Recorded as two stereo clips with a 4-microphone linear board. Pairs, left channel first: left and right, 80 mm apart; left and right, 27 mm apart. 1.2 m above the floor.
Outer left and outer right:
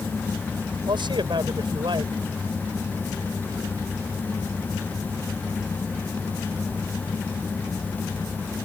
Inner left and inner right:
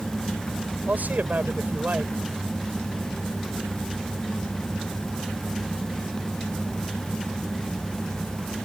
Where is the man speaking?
80° right.